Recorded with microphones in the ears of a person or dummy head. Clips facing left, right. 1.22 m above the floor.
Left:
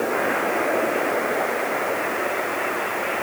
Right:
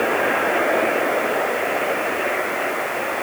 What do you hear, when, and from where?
Only background noise.